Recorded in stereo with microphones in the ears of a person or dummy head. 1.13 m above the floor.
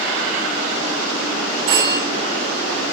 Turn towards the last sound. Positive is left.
turn(degrees=-75)  # may be behind; listen again after turning